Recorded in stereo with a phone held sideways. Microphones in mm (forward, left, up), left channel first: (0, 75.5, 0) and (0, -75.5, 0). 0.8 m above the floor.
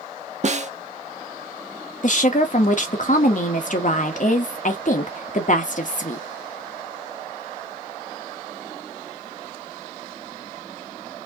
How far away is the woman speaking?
About 0.8 m.